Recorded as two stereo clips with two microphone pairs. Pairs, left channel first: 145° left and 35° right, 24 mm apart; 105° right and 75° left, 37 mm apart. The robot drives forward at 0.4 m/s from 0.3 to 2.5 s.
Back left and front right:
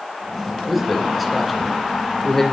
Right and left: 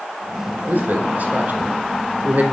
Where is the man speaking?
45° left, 1.8 m; by 2.4 s 70° left, 1.5 m.